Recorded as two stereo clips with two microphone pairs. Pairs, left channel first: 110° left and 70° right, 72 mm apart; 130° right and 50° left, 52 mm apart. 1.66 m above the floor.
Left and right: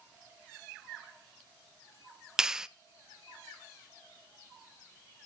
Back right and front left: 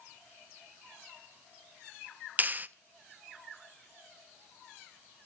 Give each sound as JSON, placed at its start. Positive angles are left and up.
{"t": 2.4, "sound": "a clap", "azimuth_deg": 10, "distance_m": 0.6}